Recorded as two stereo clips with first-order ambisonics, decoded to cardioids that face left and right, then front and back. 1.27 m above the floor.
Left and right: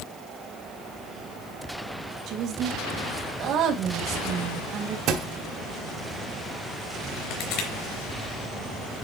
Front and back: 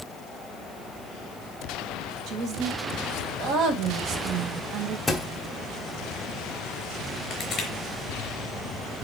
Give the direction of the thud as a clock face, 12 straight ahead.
3 o'clock.